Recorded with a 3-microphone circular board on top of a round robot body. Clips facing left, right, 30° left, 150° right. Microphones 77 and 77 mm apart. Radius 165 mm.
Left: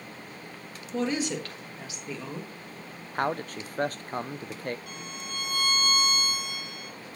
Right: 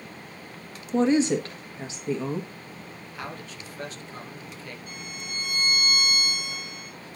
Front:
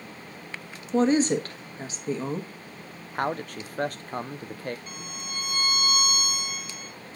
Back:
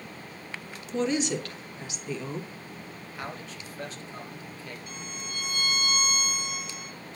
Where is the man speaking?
55° left, 0.6 m.